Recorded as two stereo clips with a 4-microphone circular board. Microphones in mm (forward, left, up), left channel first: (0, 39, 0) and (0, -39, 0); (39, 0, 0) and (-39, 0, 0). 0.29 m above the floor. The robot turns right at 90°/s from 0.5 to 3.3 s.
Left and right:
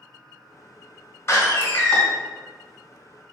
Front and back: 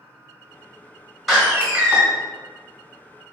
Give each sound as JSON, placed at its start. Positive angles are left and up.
{"t": 1.3, "sound": "a door slam", "azimuth_deg": 85, "distance_m": 1.0}